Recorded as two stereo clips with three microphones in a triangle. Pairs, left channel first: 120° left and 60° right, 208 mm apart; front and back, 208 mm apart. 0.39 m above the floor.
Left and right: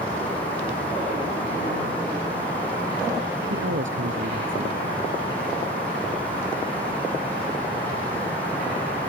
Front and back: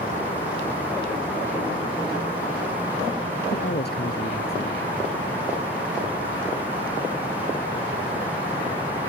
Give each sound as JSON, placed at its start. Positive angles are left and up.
{"t": 3.5, "sound": "a man speaking", "azimuth_deg": -40}